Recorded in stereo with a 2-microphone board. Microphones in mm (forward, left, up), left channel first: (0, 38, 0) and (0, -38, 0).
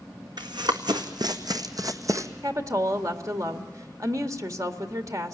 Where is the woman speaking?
50° right (ahead or behind), 1.8 m.